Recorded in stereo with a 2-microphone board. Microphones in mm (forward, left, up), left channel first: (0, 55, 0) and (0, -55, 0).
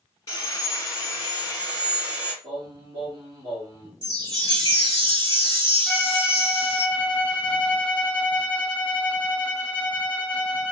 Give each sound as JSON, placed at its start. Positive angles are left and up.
{"t": 0.3, "sound": "sawing", "side_deg": 30, "distance_m": 1.9}
{"t": 2.4, "sound": "singing", "side_deg": -30, "distance_m": 2.5}
{"t": 4.0, "sound": "a chime", "side_deg": -45, "distance_m": 1.5}
{"t": 5.9, "sound": "a violin", "side_deg": 15, "distance_m": 1.6}